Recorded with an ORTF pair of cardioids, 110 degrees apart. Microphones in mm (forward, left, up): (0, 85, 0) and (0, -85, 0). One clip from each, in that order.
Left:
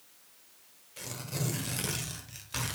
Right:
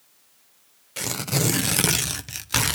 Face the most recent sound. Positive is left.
turn(degrees=-65)